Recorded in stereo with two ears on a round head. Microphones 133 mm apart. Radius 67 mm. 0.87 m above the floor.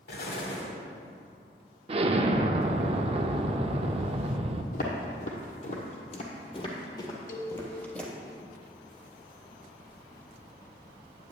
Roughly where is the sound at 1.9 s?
Right.